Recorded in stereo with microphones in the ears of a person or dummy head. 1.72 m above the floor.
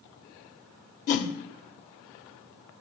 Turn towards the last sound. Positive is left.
turn(degrees=40)  # may be behind; listen again after turning